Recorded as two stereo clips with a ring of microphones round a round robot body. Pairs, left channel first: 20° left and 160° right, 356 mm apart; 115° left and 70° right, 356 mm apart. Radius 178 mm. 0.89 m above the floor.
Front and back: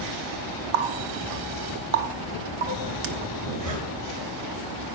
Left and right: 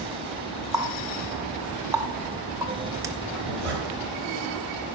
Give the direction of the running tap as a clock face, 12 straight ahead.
5 o'clock.